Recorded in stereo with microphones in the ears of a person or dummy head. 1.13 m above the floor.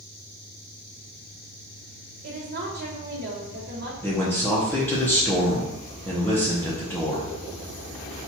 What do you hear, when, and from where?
2.2 s a woman speaking: 55° right (ahead or behind), 1.4 m
4.0 s a man speaking: 5° left (ahead or behind), 0.8 m